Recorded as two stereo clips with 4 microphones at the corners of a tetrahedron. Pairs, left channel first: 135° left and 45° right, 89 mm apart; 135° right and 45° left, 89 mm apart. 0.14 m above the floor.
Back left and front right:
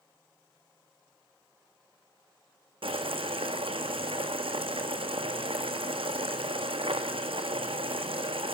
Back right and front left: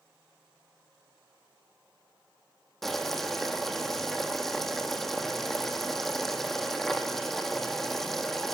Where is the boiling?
50° right, 1.4 m.